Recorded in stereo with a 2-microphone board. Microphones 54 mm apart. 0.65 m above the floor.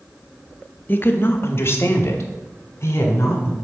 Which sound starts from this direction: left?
A woman speaking, at 0.9 s.